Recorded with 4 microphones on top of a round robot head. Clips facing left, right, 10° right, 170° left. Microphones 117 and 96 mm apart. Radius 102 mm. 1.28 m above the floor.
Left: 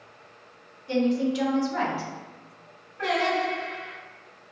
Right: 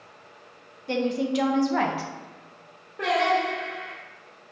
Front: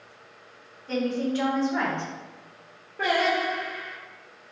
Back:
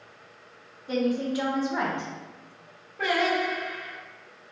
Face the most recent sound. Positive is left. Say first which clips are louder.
# right 2 dB, front 1 dB
turn(degrees=-70)